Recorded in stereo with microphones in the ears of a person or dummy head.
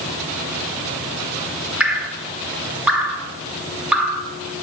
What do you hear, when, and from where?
1.8 s dripping: 10° right (ahead or behind), 1.4 m